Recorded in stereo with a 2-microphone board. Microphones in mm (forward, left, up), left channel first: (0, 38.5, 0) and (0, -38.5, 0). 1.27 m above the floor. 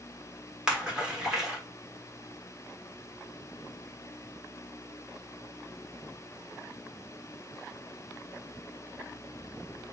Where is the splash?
10° right (ahead or behind), 1.1 m.